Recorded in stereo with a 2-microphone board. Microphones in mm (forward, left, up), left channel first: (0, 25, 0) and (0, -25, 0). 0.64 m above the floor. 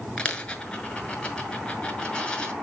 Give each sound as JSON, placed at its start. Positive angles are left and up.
{"t": 0.2, "sound": "a dropped coin", "side_deg": 25, "distance_m": 1.7}